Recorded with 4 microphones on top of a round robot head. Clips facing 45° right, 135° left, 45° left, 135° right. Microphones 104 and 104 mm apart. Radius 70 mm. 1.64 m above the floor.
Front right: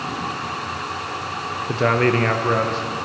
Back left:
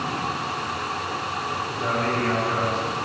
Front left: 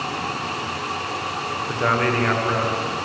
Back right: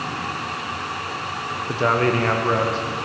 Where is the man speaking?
60° right, 1.4 m; by 2.9 s 75° right, 2 m.